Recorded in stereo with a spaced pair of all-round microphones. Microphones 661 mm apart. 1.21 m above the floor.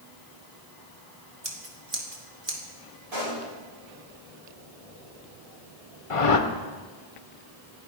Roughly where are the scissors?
Right.